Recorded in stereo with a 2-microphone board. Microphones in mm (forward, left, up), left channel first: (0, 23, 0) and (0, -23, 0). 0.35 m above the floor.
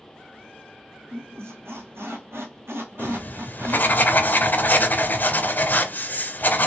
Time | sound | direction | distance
1.1 | a squeak | 70° right (ahead or behind) | 1.2 m
3.0 | writing | 40° left (ahead or behind) | 0.6 m